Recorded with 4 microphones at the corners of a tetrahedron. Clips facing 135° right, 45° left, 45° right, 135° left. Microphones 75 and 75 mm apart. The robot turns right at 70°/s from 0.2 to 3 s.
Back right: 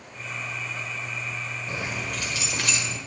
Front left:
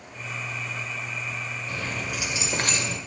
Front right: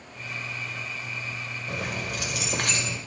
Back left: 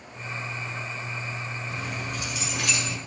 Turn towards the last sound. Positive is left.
turn(degrees=25)